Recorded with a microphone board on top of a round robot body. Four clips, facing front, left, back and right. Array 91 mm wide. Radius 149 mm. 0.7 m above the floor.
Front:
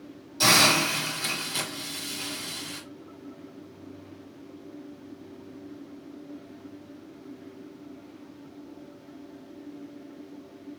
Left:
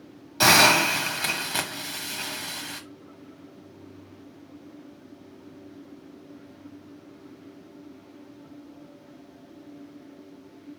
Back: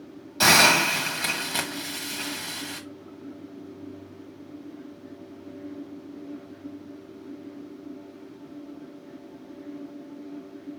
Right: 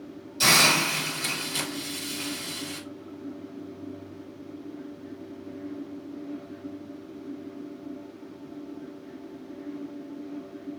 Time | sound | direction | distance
0.4 | a hiss | 120° left | 0.9 m